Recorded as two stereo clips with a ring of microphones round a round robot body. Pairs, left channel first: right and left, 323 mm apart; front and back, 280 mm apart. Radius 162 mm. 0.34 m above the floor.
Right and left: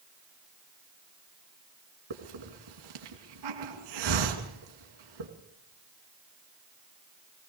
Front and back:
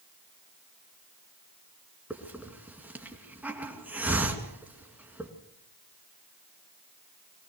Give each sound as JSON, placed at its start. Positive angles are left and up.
{"t": 2.1, "sound": "a hiss", "azimuth_deg": 95, "distance_m": 2.5}